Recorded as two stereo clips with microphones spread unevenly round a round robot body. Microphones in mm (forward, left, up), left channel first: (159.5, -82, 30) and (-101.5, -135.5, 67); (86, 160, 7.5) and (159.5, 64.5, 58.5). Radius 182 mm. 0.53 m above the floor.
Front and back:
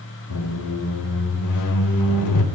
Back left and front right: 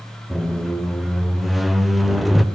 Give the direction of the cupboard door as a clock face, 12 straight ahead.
I don't hear a cupboard door.